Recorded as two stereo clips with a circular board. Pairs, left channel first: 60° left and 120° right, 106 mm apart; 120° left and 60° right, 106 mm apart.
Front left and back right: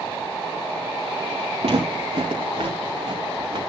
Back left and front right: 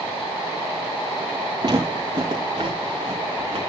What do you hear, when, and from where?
1.6 s footsteps: 100° right, 3.5 m; by 3.6 s 85° right, 4.5 m